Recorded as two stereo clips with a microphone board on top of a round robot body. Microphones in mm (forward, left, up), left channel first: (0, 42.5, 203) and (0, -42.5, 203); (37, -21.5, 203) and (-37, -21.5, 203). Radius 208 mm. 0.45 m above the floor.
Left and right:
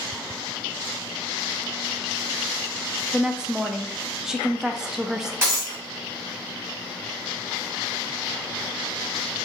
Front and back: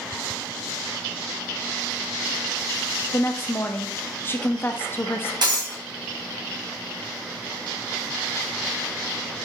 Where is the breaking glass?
155° right, 1.7 m.